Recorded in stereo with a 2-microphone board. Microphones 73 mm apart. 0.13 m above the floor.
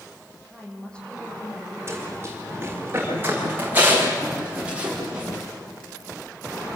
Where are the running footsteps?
35° right (ahead or behind), 10 m; by 5.3 s 15° right (ahead or behind), 9.5 m.